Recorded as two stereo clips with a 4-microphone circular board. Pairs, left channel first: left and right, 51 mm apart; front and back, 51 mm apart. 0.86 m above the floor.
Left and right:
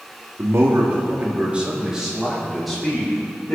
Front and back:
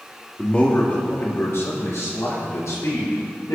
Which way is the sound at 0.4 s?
65° right.